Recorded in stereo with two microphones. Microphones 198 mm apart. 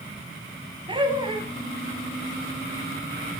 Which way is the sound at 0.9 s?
25° right (ahead or behind).